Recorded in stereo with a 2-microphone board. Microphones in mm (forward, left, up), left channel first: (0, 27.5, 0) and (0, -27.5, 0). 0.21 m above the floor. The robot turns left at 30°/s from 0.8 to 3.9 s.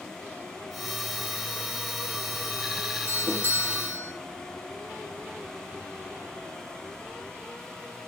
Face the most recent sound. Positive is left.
turn(degrees=-60)  # may be behind; listen again after turning